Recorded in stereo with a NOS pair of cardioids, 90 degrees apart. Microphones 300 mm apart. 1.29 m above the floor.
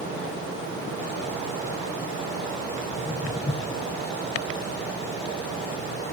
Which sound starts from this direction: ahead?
Footsteps, at 2.9 s.